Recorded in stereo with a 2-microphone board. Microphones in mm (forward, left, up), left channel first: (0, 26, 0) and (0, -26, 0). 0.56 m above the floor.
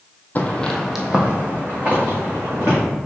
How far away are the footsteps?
About 0.9 m.